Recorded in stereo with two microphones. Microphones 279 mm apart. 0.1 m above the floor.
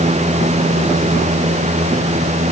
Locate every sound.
Only background noise.